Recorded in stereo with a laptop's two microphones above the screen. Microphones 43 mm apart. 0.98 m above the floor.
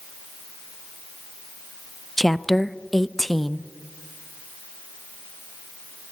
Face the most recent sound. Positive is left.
turn(degrees=5)  # may be behind; listen again after turning